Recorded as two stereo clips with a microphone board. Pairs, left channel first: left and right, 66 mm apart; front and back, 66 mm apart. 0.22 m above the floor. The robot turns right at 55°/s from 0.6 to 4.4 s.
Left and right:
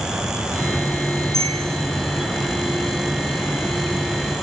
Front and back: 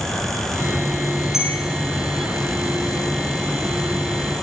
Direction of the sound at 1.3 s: 95° left.